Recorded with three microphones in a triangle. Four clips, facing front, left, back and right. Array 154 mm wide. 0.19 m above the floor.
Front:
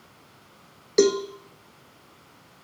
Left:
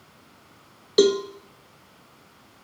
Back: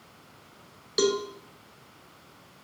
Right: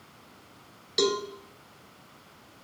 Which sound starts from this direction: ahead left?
A cowbell, at 1.0 s.